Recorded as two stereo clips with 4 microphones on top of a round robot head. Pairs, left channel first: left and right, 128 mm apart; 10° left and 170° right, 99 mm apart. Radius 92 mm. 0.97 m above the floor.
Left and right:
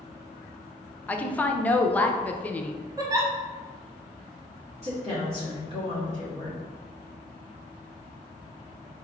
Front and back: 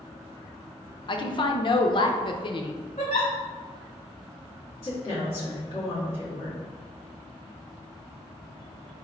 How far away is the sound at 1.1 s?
About 0.6 m.